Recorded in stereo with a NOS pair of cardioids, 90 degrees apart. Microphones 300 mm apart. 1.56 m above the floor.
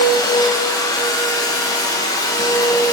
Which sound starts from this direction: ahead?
A machine running, at 0.0 s.